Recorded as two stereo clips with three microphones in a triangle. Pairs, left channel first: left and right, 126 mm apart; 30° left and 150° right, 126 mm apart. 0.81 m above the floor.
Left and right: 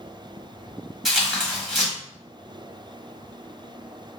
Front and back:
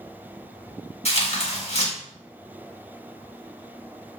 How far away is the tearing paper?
About 1.4 m.